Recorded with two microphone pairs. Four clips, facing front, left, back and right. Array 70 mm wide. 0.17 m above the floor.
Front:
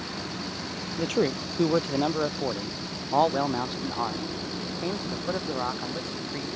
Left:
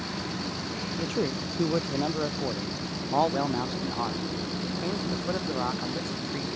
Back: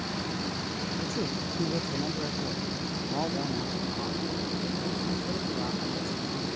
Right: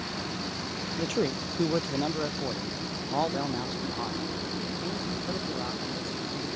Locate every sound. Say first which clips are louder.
1.0 s a man speaking: right 1 dB, front 10 dB; straight ahead; by 6.5 s 40° left